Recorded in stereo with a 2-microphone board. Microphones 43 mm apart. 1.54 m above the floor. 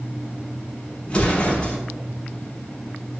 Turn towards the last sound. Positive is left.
turn(degrees=25)  # may be behind; listen again after turning